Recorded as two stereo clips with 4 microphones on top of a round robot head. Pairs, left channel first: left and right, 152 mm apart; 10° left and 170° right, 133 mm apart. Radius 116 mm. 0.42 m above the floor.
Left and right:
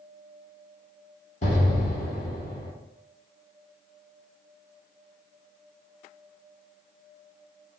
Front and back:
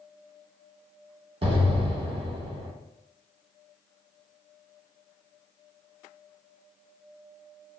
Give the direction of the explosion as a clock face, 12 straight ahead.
7 o'clock.